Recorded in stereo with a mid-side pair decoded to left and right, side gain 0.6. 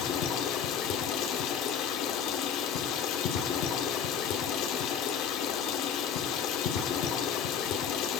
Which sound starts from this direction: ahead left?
Running water, at 0.0 s.